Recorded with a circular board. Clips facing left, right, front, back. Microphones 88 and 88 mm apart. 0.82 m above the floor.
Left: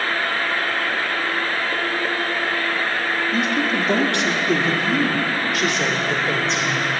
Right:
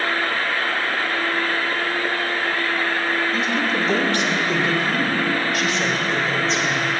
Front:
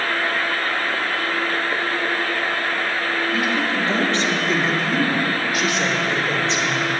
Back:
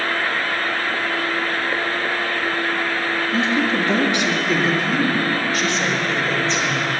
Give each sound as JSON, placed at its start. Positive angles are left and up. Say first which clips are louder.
{"t": 3.3, "sound": "a woman speaking", "louder": "left 1 dB, back 5 dB", "azimuth_deg": 125, "distance_m": 1.9}